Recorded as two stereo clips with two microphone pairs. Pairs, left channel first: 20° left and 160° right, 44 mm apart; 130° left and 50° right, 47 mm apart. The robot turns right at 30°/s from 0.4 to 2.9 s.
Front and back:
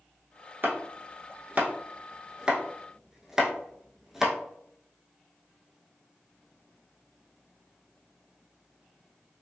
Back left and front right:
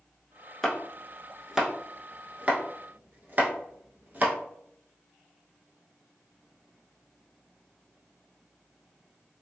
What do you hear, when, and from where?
0.6 s chopping: 150° right, 0.6 m; by 4.3 s 85° right, 0.6 m